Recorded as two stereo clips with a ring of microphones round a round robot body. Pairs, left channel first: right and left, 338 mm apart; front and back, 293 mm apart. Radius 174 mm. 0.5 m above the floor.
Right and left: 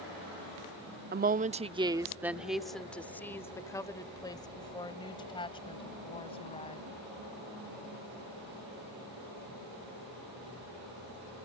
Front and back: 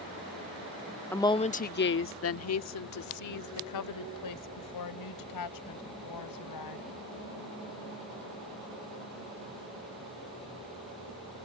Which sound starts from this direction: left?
A woman speaking, at 1.1 s.